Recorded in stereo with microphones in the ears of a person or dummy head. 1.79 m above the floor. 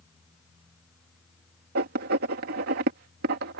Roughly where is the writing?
Right.